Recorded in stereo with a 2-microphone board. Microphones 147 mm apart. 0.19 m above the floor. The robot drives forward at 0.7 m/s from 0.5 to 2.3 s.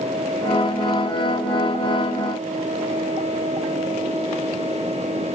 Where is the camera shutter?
No camera shutter in this recording.